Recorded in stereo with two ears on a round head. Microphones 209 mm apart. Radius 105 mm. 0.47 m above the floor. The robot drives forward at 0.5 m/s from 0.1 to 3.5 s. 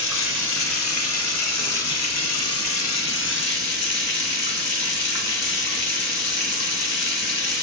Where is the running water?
55° left (ahead or behind), 1.5 m.